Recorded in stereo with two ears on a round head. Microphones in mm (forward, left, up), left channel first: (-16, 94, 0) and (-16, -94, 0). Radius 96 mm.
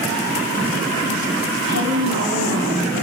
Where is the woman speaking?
55° right (ahead or behind), 4 m.